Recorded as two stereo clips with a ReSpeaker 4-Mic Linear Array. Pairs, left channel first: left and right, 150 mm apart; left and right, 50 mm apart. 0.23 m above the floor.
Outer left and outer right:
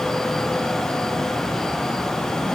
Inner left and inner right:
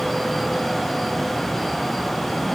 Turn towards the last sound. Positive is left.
No sound to turn to.